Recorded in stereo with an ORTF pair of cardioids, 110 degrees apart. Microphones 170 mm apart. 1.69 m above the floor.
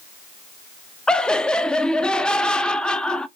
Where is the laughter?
5° left, 0.5 m.